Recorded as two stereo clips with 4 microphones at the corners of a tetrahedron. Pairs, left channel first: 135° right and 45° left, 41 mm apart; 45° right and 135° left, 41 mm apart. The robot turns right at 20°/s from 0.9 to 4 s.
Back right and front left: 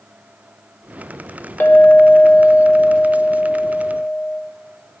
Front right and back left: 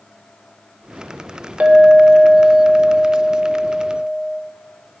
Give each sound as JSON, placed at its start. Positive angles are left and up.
{"t": 1.6, "sound": "a clink", "azimuth_deg": -170, "distance_m": 1.0}